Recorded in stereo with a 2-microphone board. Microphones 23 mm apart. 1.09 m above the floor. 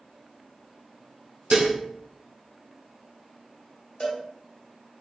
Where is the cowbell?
45° left (ahead or behind), 0.9 m.